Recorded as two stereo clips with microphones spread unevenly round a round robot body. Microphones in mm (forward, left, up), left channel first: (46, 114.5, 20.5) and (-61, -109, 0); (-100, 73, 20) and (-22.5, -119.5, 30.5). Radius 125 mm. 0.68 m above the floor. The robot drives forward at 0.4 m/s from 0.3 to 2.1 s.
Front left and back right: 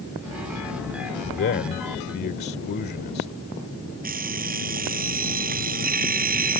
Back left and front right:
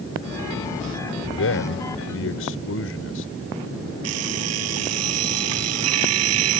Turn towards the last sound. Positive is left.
turn(degrees=-55)